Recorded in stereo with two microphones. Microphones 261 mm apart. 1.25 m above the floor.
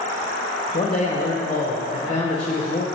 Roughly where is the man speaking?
Left.